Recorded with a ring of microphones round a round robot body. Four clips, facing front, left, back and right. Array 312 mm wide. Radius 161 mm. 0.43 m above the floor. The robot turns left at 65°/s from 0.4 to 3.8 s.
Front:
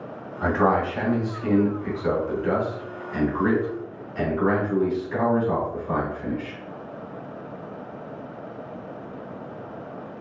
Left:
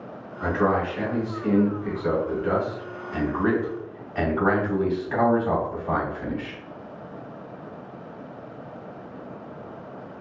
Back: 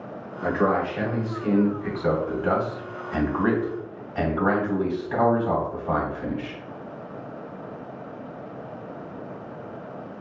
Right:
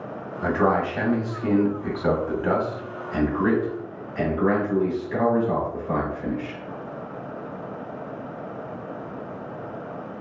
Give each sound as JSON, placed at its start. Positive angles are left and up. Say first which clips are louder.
{"t": 0.4, "sound": "a man speaking", "louder": "right 1 dB, front 2 dB", "azimuth_deg": -10, "distance_m": 2.5}